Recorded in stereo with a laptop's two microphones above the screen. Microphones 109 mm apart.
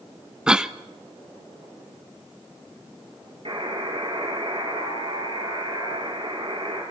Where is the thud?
I don't hear a thud.